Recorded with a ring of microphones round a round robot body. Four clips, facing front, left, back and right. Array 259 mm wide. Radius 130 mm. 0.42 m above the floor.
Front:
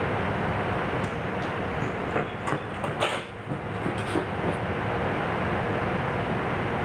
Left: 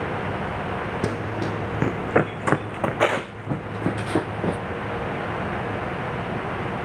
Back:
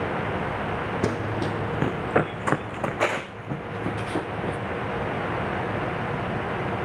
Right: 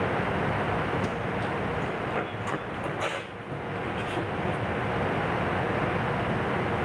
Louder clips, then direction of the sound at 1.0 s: Left 3 dB, back 4 dB; 140° left.